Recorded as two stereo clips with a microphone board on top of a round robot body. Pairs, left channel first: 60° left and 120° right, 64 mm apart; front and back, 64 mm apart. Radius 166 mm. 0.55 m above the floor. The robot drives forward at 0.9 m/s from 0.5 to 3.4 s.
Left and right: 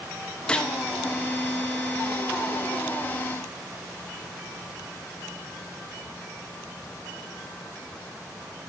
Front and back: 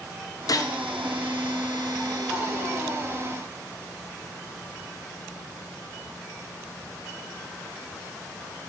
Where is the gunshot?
15° right, 1.2 m.